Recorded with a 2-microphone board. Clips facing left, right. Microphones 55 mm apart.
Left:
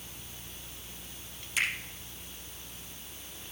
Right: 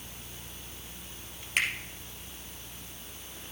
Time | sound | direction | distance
1.6 | a finger snap | 55° right (ahead or behind) | 3.5 m